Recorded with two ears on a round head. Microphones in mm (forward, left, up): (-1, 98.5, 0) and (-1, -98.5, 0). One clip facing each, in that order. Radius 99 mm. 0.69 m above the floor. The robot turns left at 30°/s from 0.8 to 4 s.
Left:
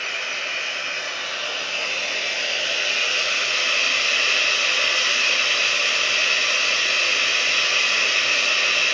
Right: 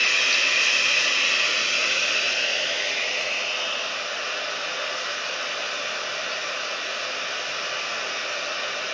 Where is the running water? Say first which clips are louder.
Right 2 dB; 125° right, 1.0 m; by 8.9 s 140° left, 1.0 m.